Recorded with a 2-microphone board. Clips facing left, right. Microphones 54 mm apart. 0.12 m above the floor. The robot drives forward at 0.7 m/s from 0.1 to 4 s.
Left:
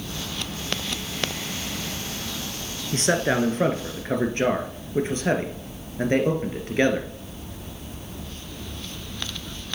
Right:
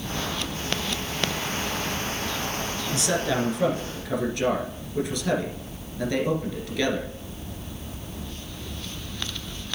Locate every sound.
2.9 s a man speaking: 40° left (ahead or behind), 1.6 m; by 7.1 s 35° left (ahead or behind), 1.8 m